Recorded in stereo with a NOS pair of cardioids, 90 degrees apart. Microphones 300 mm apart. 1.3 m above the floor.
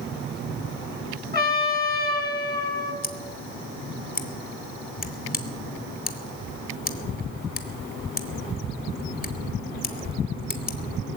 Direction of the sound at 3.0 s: 35° left.